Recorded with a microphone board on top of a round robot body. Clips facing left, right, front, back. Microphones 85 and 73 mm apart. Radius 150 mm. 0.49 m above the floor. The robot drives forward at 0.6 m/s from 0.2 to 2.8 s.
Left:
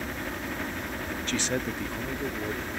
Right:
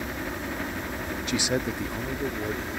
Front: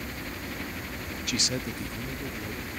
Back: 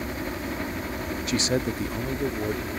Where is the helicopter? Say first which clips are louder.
Right 2 dB, back 6 dB; 170° right.